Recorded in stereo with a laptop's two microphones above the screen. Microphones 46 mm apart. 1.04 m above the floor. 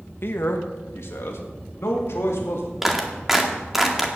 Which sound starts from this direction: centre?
A clap, at 2.8 s.